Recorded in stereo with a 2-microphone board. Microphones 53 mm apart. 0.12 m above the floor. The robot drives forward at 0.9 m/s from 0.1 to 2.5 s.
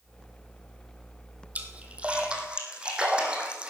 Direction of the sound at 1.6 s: 30° right (ahead or behind).